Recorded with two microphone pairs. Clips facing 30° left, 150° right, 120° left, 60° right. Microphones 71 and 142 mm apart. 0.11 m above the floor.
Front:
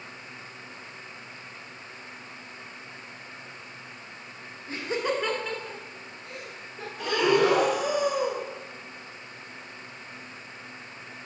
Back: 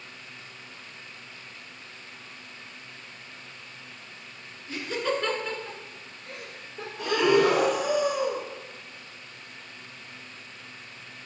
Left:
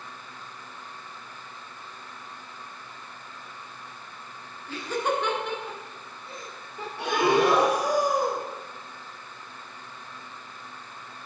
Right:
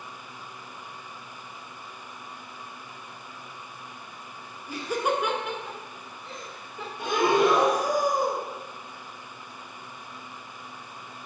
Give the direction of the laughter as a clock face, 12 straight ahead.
12 o'clock.